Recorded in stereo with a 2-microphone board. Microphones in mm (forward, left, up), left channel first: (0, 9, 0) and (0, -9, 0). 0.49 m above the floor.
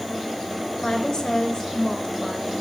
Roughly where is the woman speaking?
Left.